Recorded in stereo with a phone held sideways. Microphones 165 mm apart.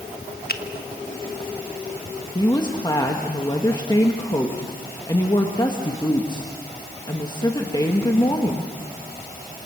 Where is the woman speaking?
25° left (ahead or behind), 1.6 m.